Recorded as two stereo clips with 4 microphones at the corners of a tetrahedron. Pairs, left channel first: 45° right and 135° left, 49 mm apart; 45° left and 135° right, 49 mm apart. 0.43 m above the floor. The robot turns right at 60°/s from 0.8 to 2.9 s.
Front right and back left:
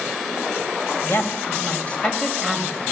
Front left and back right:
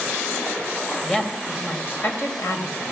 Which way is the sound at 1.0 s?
35° right.